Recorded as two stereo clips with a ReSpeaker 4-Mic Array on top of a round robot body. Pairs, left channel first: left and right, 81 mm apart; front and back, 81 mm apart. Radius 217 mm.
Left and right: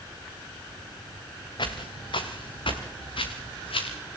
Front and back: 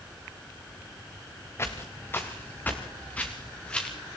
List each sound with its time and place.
1.6 s footsteps: 60° left, 3.5 m; by 4.0 s 80° left, 4 m